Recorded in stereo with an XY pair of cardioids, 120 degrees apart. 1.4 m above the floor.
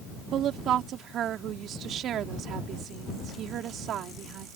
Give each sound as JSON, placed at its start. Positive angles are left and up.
{"t": 0.3, "sound": "a woman speaking", "azimuth_deg": -60}